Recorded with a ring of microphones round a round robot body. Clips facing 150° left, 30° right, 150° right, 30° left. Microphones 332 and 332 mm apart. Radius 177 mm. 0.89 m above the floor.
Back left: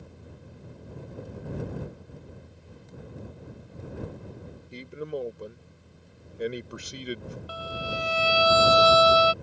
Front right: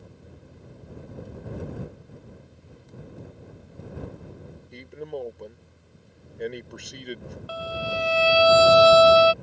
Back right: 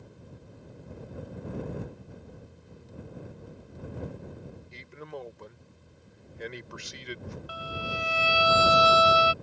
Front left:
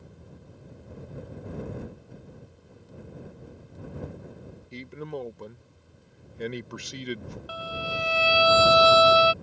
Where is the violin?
15° right.